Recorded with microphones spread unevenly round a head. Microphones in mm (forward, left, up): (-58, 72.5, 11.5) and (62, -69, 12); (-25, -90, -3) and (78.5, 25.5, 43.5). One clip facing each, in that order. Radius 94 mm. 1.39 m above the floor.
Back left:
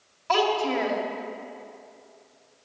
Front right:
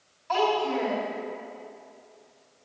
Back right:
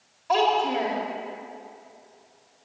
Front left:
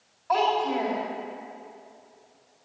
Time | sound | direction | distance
0.3 | a child speaking | 155° left | 2 m